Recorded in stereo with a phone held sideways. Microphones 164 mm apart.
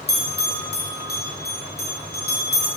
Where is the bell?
75° left (ahead or behind), 0.8 m.